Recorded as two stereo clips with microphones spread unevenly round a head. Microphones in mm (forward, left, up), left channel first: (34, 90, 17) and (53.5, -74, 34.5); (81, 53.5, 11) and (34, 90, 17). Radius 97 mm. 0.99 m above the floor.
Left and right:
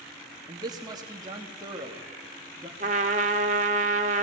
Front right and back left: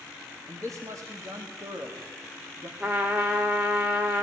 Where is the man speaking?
155° right, 2.5 m.